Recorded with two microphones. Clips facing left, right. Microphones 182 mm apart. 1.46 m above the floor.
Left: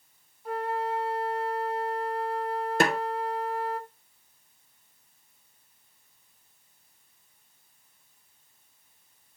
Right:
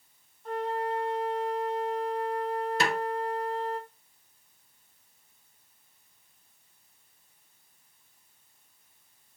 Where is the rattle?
I don't hear a rattle.